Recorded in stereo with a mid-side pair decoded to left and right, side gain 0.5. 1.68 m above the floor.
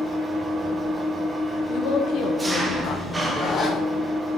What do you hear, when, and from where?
0.0 s an engine running: 20° right, 1.3 m
1.7 s a woman speaking: 65° left, 1.0 m
3.3 s a zipper: 45° left, 3 m